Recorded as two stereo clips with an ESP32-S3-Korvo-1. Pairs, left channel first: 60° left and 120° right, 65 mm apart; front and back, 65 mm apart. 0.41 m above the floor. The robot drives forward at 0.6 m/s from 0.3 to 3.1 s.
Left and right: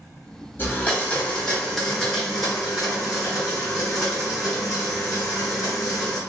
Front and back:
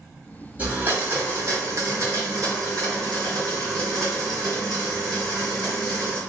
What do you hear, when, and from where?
0.6 s a blender: 120° left, 1.1 m; by 6.2 s 155° left, 2 m